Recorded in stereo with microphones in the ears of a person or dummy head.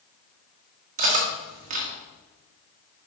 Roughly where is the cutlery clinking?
Right.